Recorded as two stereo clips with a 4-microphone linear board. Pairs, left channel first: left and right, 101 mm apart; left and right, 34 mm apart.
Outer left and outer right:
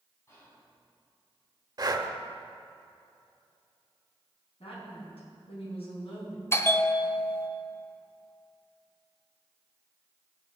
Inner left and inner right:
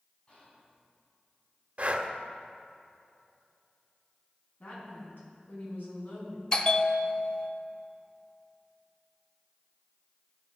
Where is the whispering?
30° left (ahead or behind), 4 m.